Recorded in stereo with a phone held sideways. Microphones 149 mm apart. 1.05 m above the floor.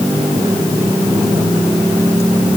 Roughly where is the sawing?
I don't hear sawing.